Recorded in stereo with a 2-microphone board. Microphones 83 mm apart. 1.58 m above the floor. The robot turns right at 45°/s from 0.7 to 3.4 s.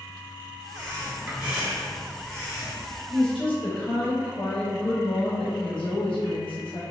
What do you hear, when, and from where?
0.7 s breathing: 50° right, 0.9 m; by 3.0 s 55° left, 0.9 m
3.1 s a woman speaking: 70° left (ahead or behind), 1.0 m; by 6.8 s 80° left, 1.0 m